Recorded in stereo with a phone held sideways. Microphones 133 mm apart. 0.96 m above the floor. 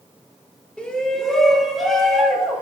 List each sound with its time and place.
0.8 s a shout: 10° left (ahead or behind), 1.4 m; by 2.6 s 5° right (ahead or behind), 2.5 m